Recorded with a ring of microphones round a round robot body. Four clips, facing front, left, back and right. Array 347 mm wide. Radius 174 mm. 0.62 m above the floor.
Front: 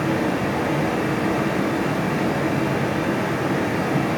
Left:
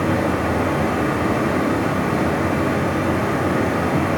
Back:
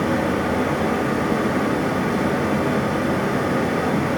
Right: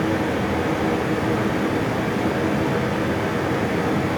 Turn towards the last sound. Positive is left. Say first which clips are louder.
# left 2 dB, back 1 dB
turn(degrees=105)